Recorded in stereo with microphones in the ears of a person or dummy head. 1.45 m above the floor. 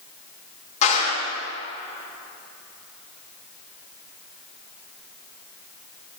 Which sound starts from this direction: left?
A clap, at 0.8 s.